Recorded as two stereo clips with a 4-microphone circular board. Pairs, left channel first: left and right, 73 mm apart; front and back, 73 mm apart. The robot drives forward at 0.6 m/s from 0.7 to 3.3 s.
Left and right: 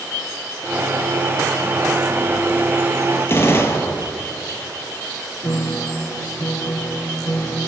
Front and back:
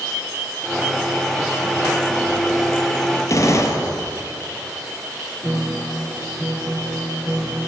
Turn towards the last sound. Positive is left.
turn(degrees=130)